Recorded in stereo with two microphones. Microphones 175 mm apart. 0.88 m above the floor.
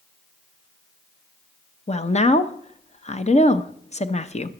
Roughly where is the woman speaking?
Left.